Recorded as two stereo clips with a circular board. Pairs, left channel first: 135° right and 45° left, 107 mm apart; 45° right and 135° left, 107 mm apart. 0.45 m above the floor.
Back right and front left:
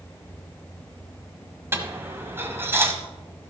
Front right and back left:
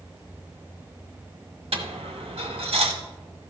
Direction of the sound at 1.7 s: 115° left.